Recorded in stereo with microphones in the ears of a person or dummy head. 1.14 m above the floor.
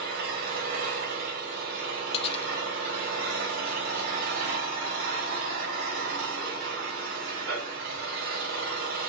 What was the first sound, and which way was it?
An engine running, 75° right (ahead or behind).